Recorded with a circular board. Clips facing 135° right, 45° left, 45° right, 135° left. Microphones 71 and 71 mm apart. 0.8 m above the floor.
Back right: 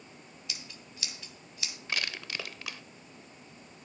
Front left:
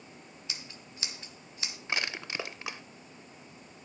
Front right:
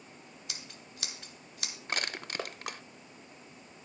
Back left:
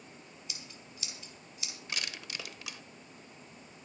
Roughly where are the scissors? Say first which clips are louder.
Even, front right 3 dB; ahead.